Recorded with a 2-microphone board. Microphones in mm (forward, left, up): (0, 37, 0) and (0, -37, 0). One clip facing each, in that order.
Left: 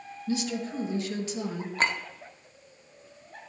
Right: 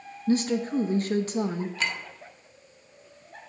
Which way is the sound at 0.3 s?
45° right (ahead or behind).